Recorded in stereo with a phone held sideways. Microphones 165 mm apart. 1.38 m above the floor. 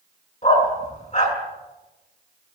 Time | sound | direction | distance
0.4 | a dog barking | 45° left (ahead or behind) | 5 m